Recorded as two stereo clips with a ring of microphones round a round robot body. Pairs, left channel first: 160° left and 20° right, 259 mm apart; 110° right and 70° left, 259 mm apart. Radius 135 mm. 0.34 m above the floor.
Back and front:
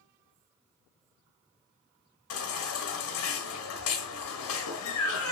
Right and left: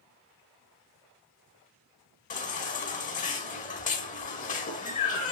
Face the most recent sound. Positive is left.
turn(degrees=-175)